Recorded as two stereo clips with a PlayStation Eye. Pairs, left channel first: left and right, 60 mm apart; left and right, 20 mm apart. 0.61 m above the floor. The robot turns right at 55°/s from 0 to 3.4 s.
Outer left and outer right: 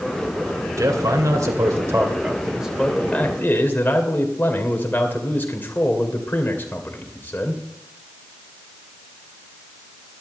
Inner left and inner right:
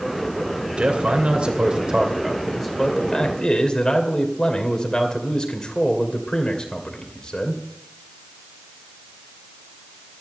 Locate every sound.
0.8 s a man speaking: 110° right, 2.5 m; by 7.6 s 35° left, 2.5 m